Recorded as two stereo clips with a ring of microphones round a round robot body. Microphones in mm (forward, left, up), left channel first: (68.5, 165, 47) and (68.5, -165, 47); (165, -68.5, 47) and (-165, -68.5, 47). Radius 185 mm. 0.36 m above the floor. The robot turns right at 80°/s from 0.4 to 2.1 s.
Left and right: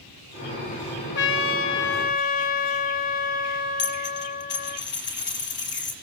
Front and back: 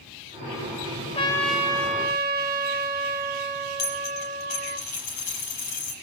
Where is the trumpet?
60° left, 1.5 m; by 4.8 s 140° left, 1.5 m.